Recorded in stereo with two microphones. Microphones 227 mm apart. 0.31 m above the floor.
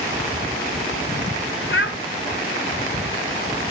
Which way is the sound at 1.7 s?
60° left (ahead or behind).